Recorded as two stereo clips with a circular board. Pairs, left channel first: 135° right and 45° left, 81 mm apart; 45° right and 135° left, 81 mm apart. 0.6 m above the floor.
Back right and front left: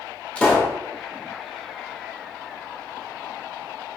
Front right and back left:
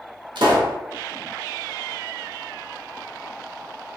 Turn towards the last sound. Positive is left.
turn(degrees=150)